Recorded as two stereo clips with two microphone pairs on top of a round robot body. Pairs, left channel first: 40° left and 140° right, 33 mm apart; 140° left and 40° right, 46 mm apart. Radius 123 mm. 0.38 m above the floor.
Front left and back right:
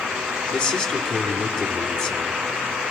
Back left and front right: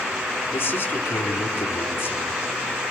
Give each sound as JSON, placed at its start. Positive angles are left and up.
{"t": 0.5, "sound": "a man speaking", "azimuth_deg": 100, "distance_m": 3.5}